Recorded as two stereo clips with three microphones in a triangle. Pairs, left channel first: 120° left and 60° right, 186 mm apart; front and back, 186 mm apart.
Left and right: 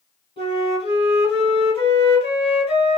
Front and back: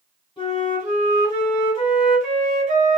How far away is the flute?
About 1.4 m.